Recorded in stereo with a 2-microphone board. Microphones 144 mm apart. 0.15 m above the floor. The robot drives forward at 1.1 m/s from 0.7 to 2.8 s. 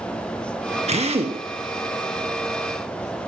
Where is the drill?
50° right (ahead or behind), 2 m; by 1.4 s 45° right (ahead or behind), 2.5 m.